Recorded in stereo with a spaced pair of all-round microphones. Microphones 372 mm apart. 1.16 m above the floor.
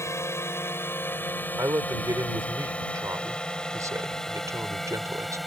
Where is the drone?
5° left (ahead or behind); by 5.5 s centre (ahead or behind).